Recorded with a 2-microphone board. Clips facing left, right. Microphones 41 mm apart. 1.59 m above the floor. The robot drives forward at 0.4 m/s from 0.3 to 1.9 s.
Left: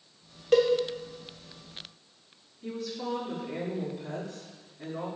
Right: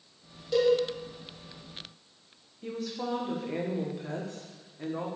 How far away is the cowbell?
About 0.8 m.